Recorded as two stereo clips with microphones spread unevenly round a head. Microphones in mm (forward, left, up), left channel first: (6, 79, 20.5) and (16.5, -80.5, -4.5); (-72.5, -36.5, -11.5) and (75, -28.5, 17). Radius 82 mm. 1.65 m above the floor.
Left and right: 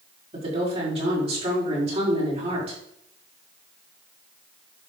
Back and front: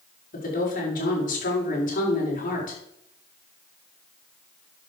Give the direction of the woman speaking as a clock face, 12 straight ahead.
5 o'clock.